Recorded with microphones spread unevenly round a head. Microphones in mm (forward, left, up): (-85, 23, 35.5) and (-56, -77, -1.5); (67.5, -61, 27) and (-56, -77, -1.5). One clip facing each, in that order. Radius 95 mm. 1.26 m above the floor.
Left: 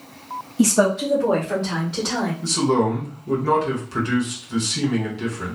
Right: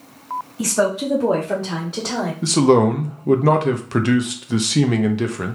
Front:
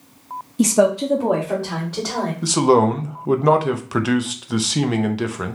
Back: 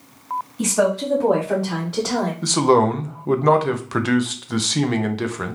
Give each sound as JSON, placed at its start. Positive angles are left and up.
{"t": 0.6, "sound": "a woman speaking", "azimuth_deg": 40, "distance_m": 0.6}
{"t": 2.4, "sound": "a man speaking", "azimuth_deg": -80, "distance_m": 0.6}